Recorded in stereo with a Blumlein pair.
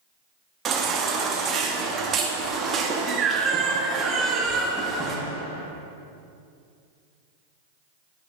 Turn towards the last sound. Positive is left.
turn(degrees=-25)